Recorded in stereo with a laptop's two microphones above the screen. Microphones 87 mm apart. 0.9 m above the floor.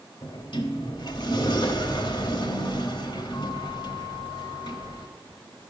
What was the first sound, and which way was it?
A sliding door, 65° left (ahead or behind).